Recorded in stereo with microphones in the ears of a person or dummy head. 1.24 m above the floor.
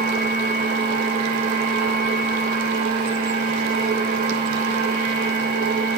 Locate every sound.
0.0 s a machine running: 40° right (ahead or behind), 4.5 m